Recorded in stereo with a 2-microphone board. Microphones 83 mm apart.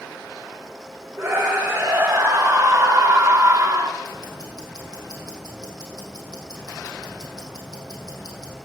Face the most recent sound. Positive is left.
turn(degrees=50)  # may be behind; listen again after turning